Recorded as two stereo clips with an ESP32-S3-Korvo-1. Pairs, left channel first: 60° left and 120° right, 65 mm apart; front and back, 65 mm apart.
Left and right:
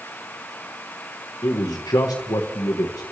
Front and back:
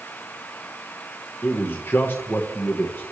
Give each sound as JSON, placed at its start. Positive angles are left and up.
{"t": 1.4, "sound": "a man speaking", "azimuth_deg": 60, "distance_m": 1.3}